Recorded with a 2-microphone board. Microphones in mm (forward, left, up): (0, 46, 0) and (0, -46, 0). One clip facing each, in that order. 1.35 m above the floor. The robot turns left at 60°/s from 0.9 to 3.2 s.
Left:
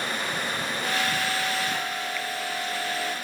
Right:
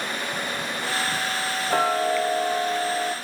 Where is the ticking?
75° right, 0.7 m; by 3.1 s 165° right, 0.7 m.